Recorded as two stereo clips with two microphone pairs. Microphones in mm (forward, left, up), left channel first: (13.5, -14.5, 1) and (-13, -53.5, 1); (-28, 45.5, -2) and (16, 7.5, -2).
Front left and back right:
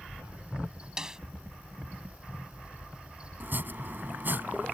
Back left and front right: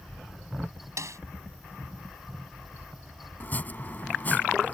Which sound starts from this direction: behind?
Chopping, at 3.4 s.